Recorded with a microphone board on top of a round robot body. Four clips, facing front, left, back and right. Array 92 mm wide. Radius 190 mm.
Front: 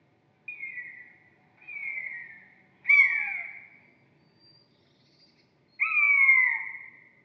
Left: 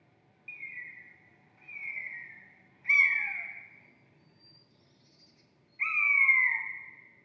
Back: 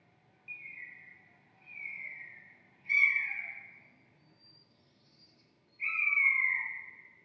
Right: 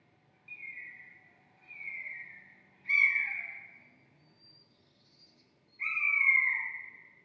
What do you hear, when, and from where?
0.5 s a bird: 20° left, 0.5 m